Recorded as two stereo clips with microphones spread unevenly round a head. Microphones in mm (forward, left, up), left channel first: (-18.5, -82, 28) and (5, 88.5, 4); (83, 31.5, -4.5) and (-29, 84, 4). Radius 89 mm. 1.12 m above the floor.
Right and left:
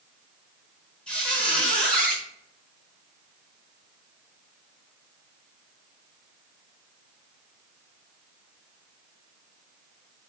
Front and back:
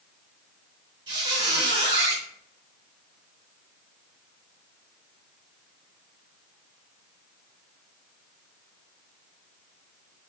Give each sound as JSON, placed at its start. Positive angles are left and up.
{"t": 1.1, "sound": "a squeak", "azimuth_deg": -170, "distance_m": 1.0}